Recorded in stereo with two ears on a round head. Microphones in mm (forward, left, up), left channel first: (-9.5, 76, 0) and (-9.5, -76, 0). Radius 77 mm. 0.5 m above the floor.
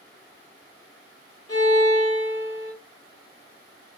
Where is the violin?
20° left (ahead or behind), 0.7 m.